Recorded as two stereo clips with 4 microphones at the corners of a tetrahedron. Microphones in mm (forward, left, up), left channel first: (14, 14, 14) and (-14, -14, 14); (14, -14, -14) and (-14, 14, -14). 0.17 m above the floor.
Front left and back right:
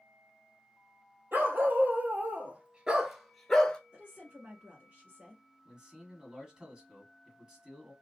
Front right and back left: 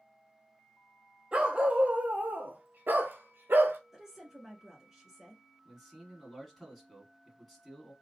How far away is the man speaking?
About 1.2 m.